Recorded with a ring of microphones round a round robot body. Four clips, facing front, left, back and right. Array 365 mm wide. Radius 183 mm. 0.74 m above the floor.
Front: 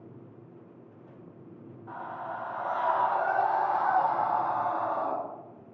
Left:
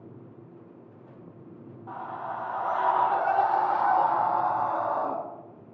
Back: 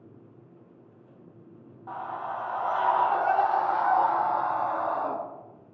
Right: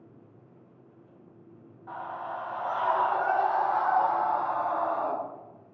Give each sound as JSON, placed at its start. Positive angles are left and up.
{"t": 1.9, "sound": "a scream", "azimuth_deg": 155, "distance_m": 2.5}